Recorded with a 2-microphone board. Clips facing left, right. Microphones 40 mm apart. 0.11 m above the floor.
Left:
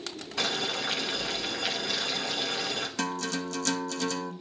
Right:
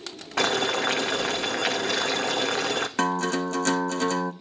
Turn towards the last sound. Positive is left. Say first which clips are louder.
# right 8 dB
turn(degrees=-35)  # may be behind; listen again after turning